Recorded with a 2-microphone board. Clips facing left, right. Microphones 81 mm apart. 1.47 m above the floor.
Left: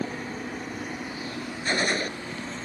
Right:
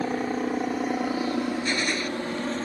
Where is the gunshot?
35° left (ahead or behind).